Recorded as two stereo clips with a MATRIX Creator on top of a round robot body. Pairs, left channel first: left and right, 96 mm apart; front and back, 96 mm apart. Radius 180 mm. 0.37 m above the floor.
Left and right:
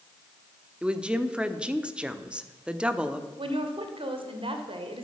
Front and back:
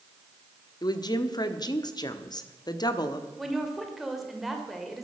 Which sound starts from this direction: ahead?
A woman speaking, at 0.8 s.